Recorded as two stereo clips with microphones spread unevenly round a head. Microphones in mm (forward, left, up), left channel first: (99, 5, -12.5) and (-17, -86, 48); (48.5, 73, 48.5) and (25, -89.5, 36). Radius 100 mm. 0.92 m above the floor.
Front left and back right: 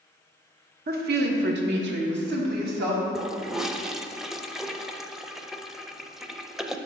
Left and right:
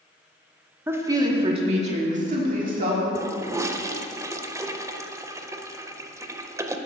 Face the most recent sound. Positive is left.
turn(degrees=-35)